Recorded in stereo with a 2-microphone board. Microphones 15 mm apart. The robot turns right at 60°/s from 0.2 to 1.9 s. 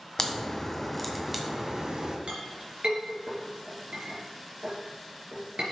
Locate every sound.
0.2 s a crack: 130° left, 1.7 m; by 2.2 s 125° right, 1.7 m
2.3 s a clink: 70° right (ahead or behind), 3.5 m